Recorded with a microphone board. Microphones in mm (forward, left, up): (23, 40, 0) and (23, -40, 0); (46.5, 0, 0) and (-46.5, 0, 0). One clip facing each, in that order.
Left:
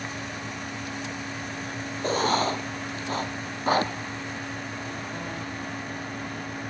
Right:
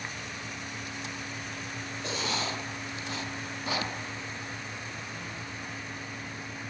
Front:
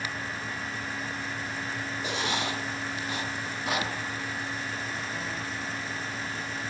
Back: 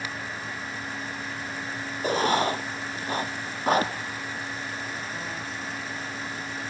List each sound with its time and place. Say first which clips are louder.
2.0 s writing: left 10 dB, back 9 dB; 135° left, 1.1 m